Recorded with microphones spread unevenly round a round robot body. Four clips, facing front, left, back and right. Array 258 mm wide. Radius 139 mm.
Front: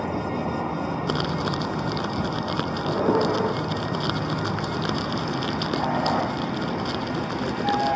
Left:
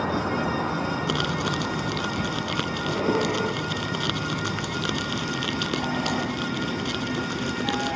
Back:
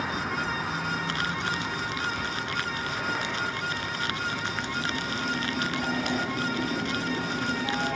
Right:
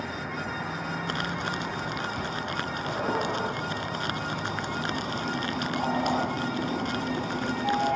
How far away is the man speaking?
I don't hear a man speaking.